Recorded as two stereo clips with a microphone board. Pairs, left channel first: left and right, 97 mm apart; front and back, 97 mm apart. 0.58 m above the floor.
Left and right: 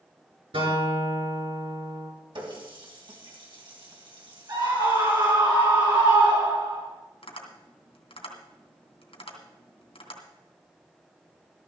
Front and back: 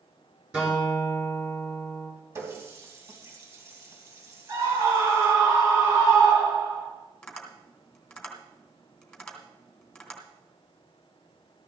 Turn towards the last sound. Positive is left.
turn(degrees=85)